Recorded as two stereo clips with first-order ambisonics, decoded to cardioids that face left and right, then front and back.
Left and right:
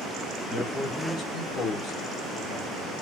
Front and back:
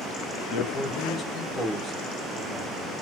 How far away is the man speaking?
About 1.0 m.